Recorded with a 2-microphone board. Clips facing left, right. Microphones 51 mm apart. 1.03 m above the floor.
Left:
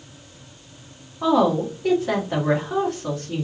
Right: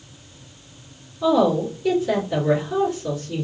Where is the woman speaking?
55° left (ahead or behind), 1.7 m.